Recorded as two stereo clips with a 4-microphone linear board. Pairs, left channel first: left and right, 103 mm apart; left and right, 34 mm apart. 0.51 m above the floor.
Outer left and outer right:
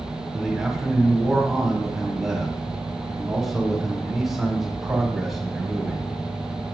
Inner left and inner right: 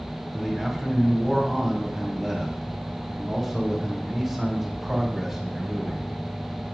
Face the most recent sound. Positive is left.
turn(degrees=-5)  # may be behind; listen again after turning